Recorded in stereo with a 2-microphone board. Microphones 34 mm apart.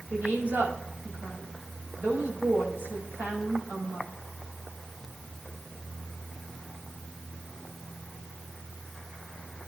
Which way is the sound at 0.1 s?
85° right.